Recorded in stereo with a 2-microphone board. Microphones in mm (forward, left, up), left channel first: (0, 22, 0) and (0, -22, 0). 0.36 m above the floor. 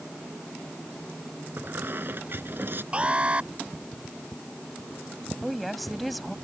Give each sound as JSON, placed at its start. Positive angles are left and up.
{"t": 1.6, "sound": "a squeak", "side_deg": -55}
{"t": 2.9, "sound": "an alarm", "side_deg": -30}
{"t": 5.4, "sound": "a woman speaking", "side_deg": 0}